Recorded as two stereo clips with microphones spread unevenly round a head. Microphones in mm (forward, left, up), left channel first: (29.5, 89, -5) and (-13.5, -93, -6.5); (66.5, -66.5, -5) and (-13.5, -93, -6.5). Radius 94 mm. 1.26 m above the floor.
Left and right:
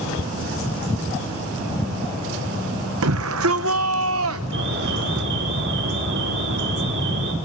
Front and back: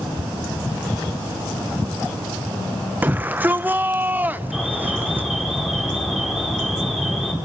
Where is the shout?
95° right, 0.8 m.